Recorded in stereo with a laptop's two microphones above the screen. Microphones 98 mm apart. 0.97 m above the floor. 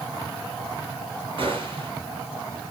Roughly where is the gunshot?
Right.